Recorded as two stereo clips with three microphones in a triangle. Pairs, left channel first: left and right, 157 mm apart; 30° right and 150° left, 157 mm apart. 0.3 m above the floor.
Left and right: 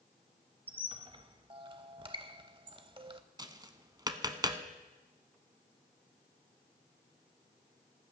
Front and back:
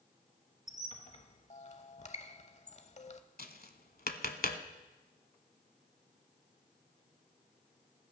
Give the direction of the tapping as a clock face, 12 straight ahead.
1 o'clock.